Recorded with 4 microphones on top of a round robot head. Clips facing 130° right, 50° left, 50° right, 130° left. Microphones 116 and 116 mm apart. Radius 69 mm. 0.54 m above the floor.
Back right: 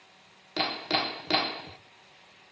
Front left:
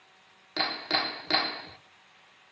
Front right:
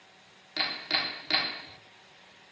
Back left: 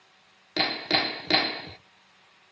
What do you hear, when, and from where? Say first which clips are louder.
0.6 s hammering: back right 2 dB, back left 8 dB; 155° left, 0.9 m